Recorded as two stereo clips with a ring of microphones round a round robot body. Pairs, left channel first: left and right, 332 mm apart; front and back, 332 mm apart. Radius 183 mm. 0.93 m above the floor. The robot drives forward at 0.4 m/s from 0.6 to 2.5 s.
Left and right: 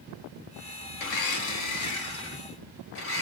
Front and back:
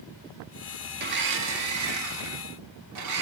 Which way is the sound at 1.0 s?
120° left.